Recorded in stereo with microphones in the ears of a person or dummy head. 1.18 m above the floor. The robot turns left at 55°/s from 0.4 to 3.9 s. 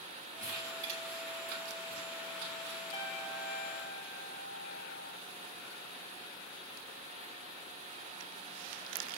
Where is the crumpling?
15° right (ahead or behind), 7.5 m; by 2.8 s 35° right (ahead or behind), 7.5 m.